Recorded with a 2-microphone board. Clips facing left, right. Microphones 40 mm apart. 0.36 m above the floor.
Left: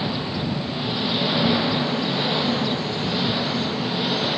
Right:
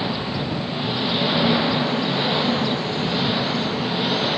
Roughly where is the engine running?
Centre.